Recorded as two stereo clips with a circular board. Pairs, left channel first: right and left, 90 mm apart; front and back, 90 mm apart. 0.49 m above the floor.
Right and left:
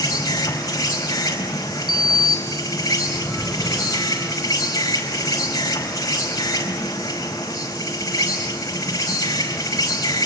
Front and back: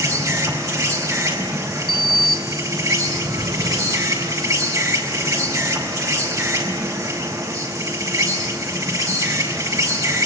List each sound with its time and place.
0.0 s an insect: 135° right, 4.5 m
1.9 s a sliding door: straight behind, 1.6 m